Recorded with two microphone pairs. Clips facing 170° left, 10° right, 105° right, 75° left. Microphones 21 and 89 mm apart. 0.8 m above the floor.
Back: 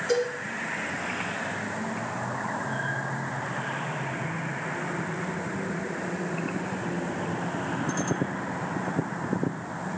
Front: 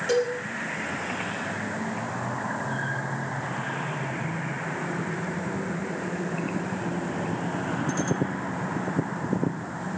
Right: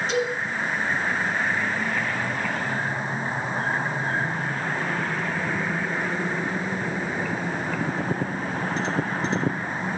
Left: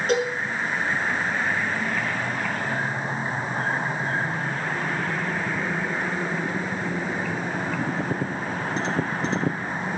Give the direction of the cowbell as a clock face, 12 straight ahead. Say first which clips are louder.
Front 2 dB, left 3 dB; 11 o'clock.